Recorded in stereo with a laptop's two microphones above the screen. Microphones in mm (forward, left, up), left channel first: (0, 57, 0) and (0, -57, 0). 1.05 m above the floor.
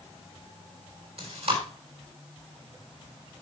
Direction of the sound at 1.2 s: 60° right (ahead or behind).